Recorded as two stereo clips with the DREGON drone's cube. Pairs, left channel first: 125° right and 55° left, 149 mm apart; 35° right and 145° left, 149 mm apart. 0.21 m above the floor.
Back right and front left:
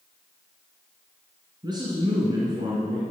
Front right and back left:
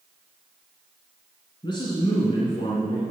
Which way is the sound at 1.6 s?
10° left.